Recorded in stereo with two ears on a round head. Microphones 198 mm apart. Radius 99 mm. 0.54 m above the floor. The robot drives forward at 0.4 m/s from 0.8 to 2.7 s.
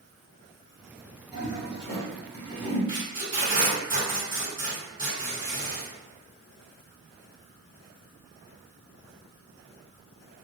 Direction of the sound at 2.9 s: 30° right (ahead or behind).